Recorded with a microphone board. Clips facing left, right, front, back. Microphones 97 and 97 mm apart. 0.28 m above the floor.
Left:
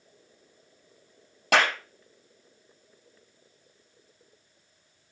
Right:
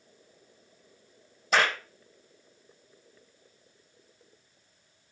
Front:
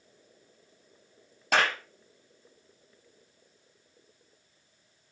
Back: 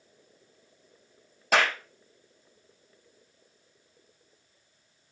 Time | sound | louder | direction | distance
1.5 | a clap | left 2 dB, back 1 dB | 95° left | 7 m